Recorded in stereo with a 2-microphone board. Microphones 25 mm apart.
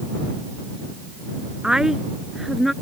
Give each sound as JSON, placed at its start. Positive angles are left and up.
{"t": 1.6, "sound": "a woman speaking", "side_deg": -30}